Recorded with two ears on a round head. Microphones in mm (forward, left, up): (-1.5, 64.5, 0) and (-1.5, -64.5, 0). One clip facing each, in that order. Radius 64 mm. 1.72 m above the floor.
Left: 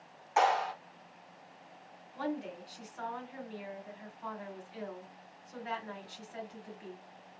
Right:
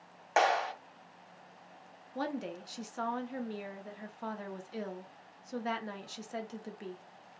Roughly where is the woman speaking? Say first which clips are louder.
Even; right.